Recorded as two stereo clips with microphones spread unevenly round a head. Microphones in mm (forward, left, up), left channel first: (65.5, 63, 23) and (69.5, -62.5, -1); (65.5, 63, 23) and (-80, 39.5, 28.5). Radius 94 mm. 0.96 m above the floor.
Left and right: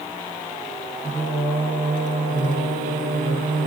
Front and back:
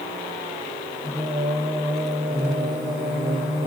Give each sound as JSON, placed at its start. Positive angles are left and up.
{"t": 1.0, "sound": "singing", "azimuth_deg": -80, "distance_m": 1.9}